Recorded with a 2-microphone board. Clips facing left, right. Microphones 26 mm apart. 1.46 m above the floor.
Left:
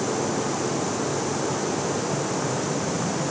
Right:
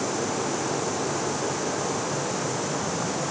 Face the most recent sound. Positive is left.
No sound to turn to.